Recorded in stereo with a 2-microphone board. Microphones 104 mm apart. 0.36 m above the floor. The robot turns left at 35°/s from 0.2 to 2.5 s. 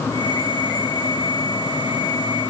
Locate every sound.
Only background noise.